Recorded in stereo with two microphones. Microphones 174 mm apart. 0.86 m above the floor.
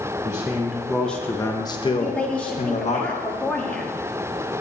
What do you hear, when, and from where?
0.2 s a man speaking: 15° right (ahead or behind), 1.2 m; by 3.0 s 40° left (ahead or behind), 1.5 m
2.0 s a woman speaking: 5° left (ahead or behind), 1.6 m